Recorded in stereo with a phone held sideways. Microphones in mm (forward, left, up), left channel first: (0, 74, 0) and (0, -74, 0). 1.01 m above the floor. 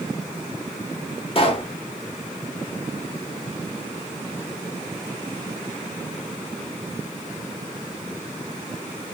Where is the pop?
40° left (ahead or behind), 0.7 m.